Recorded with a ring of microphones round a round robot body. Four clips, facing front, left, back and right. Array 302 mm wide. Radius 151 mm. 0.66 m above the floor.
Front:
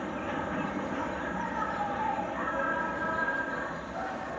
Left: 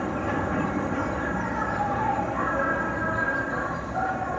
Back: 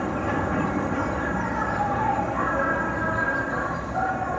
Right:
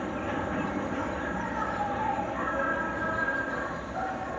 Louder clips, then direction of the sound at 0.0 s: Left 4 dB, back 8 dB; 150° left.